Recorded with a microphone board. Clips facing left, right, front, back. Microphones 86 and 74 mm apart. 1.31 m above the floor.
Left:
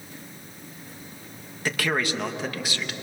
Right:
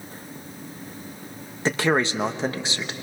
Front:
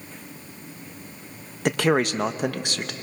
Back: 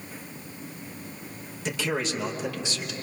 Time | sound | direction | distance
1.6 | a man speaking | 30° right | 1.1 m